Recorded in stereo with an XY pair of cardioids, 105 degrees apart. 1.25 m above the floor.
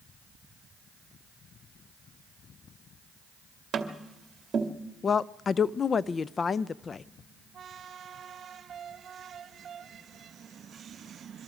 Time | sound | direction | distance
3.7 | tapping | 50° right | 2 m
5.0 | a woman speaking | 40° left | 0.6 m